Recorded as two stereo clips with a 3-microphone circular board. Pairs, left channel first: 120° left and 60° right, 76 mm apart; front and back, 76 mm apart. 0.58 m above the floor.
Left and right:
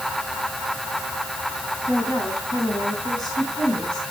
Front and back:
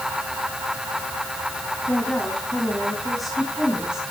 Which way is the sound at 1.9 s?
70° left.